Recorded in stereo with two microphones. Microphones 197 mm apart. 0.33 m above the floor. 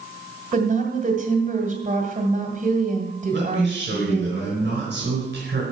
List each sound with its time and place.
0.5 s a woman speaking: 40° right (ahead or behind), 1.7 m
3.3 s a man speaking: 65° right (ahead or behind), 4 m